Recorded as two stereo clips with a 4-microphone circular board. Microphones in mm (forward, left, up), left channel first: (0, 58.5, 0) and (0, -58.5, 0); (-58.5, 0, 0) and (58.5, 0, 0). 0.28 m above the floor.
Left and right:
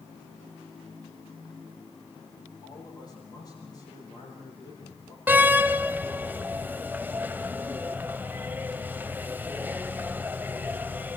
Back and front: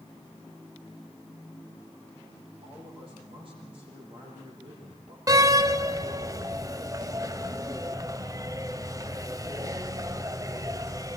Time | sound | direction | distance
2.6 | a man speaking | 35° left | 9.5 m
5.3 | a door slam | 30° right | 0.7 m